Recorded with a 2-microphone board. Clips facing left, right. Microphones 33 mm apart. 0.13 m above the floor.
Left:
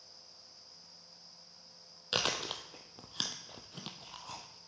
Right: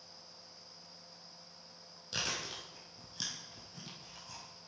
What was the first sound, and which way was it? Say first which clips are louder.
Chewing: left 5 dB; 55° left (ahead or behind).